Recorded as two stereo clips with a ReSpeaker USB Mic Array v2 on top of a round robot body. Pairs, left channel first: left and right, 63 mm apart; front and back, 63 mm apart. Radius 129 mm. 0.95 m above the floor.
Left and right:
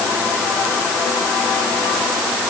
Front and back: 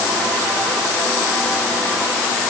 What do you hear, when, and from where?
Only background noise.